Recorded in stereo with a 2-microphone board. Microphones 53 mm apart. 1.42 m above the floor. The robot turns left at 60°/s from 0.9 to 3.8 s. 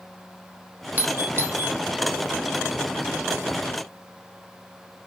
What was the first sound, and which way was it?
A doorbell, 35° right (ahead or behind).